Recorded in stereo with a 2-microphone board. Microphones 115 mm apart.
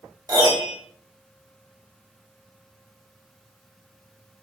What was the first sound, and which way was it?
A piano, 25° right (ahead or behind).